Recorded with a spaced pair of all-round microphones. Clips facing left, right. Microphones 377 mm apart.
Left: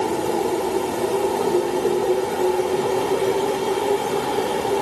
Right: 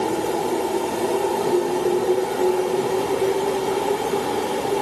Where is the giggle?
I don't hear a giggle.